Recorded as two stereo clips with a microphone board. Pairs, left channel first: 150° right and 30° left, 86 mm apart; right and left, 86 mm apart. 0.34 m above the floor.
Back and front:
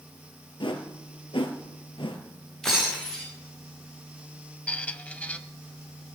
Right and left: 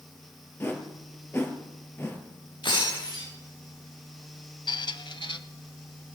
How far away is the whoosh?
About 2 m.